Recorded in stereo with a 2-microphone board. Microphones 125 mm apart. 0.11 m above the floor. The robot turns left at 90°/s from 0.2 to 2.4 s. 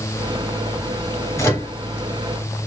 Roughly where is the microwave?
Left.